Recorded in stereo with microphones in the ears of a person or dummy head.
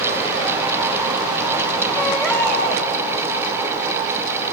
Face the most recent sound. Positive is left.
turn(degrees=10)  # may be behind; listen again after turning